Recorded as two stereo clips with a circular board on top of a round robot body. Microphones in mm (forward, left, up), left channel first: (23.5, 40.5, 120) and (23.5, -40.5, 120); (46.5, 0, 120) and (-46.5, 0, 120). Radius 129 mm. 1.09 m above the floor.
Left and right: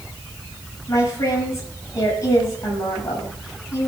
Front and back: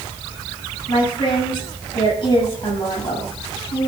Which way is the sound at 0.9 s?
35° left.